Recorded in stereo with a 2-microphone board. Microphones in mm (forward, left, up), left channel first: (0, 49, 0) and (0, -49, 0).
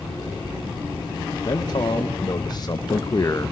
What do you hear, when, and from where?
1.4 s a man speaking: 45° left (ahead or behind), 1.8 m; by 3.5 s 30° left (ahead or behind), 0.7 m